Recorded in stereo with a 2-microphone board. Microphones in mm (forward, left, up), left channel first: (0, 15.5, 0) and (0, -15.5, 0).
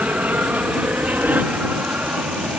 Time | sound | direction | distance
0.0 | an aircraft | 60° right (ahead or behind) | ?